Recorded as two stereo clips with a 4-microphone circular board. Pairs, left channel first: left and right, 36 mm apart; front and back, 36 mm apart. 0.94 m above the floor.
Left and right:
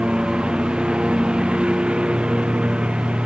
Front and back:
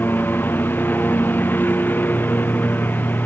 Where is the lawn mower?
25° right; by 3.3 s 30° right.